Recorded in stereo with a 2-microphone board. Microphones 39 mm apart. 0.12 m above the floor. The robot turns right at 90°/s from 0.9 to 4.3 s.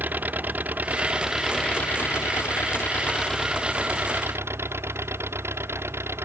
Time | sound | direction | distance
0.0 | an engine running | 45° right | ?